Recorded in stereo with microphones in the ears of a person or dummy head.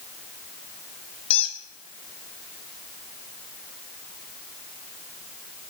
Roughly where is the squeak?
Left.